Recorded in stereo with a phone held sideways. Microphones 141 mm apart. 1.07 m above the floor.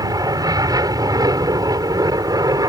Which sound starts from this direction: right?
An aircraft, at 0.0 s.